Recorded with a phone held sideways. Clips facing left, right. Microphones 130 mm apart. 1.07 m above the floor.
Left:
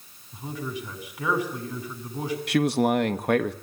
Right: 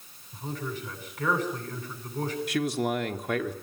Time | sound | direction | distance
0.3 | a man speaking | 10° left (ahead or behind) | 9 m
2.5 | a man speaking | 70° left (ahead or behind) | 1.6 m